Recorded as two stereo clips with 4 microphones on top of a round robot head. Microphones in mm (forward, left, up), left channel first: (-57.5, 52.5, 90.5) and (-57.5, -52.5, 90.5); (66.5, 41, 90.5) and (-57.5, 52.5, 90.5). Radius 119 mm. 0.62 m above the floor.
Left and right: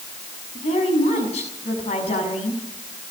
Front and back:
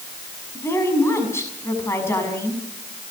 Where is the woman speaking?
65° left, 6.5 m.